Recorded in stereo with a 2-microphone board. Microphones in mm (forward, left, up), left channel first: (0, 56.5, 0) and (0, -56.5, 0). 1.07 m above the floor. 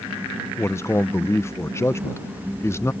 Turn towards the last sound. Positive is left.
turn(degrees=25)  # may be behind; listen again after turning